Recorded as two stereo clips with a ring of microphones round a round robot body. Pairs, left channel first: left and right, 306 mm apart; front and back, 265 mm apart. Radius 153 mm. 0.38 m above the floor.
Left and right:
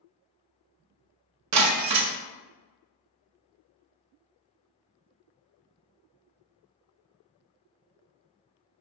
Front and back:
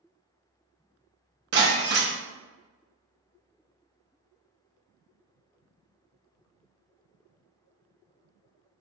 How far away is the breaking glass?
About 0.5 m.